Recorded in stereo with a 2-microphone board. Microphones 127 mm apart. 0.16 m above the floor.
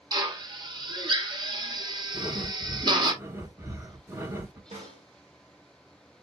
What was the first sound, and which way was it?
A drill, 35° right (ahead or behind).